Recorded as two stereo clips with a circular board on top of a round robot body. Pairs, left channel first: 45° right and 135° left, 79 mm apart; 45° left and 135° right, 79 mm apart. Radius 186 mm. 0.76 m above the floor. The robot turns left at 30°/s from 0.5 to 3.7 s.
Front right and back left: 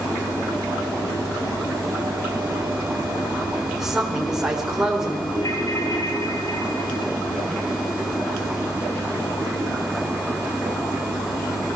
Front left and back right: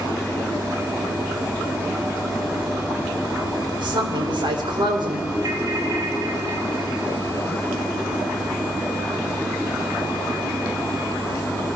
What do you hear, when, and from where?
3.7 s a woman speaking: 140° right, 4 m
5.3 s a ringtone: 90° right, 2.5 m